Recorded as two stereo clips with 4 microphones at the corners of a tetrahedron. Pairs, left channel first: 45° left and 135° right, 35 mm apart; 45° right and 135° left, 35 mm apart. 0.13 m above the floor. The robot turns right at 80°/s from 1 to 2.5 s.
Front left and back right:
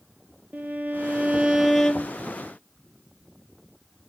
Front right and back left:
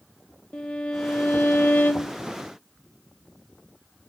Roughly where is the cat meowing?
I don't hear a cat meowing.